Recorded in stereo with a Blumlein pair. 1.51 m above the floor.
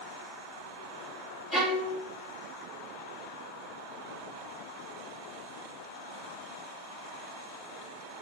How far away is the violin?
About 2 m.